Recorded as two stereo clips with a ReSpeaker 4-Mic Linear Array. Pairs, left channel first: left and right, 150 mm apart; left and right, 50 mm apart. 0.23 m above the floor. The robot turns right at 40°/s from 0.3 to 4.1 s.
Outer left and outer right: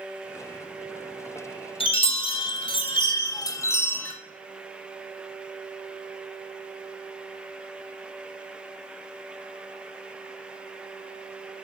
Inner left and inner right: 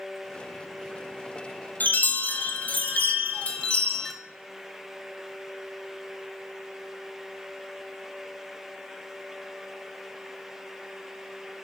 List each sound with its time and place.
1.8 s a chime: 75° left, 0.6 m; by 4.1 s 165° left, 0.6 m